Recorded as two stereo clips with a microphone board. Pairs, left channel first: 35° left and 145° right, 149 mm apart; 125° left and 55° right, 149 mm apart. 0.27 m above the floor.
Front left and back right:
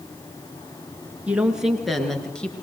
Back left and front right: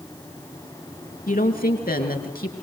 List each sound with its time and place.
1.3 s a woman speaking: 135° left, 4 m; by 2.5 s 115° left, 5 m